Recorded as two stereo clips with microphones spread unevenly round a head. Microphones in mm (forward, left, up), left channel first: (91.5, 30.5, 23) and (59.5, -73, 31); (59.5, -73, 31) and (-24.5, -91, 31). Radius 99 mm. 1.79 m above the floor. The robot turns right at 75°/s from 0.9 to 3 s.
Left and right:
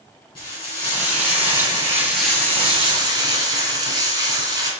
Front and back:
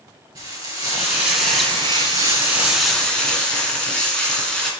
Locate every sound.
0.3 s frying: 135° left, 3 m; by 4.7 s 65° right, 3 m